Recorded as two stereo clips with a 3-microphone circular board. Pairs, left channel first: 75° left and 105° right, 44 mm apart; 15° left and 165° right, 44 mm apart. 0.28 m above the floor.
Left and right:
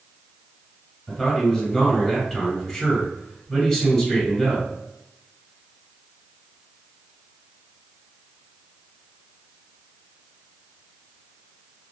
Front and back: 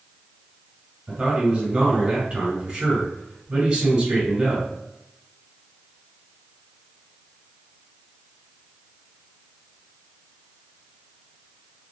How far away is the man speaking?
About 1.6 m.